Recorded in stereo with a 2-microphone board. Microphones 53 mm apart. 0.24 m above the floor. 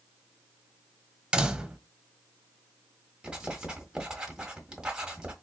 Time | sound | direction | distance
1.3 | a door slam | 20° right (ahead or behind) | 0.7 m
3.2 | writing | 15° right (ahead or behind) | 1.5 m